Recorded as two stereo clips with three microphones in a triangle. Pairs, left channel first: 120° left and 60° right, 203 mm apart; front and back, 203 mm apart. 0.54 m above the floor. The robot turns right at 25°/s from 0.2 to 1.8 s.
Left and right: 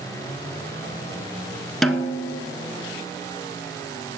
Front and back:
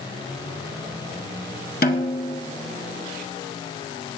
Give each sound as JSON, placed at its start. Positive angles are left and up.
{"t": 1.8, "sound": "a snare drum", "azimuth_deg": 30, "distance_m": 1.1}